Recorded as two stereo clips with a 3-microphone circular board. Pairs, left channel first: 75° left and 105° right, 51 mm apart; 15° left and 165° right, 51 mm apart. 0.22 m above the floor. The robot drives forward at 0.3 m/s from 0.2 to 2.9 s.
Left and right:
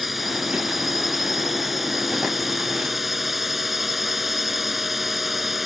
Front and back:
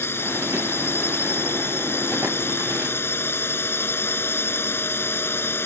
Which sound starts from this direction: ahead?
A drone, at 0.0 s.